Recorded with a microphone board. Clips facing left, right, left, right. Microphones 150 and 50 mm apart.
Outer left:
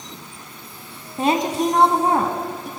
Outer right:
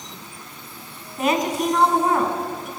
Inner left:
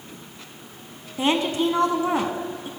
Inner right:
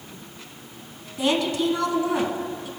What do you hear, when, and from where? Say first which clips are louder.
1.2 s a woman speaking: outer left 2 dB, inner left 1 dB; 30° left (ahead or behind), 1.3 m